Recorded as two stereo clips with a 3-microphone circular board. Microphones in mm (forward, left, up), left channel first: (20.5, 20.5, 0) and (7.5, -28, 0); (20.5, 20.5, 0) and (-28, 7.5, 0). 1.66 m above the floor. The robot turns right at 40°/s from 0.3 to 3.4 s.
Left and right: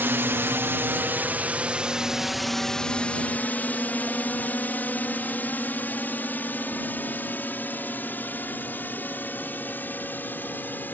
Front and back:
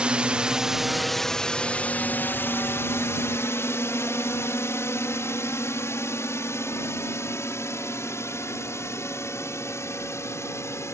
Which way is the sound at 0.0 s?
105° right.